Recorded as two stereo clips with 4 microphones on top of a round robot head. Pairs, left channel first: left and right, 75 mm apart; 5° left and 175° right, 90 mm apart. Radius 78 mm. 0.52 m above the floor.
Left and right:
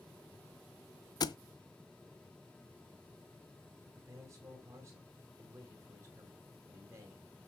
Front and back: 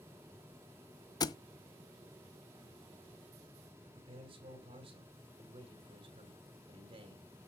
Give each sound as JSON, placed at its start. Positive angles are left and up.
{"t": 1.2, "sound": "a thud", "azimuth_deg": 55, "distance_m": 0.7}
{"t": 3.8, "sound": "a man speaking", "azimuth_deg": -145, "distance_m": 3.0}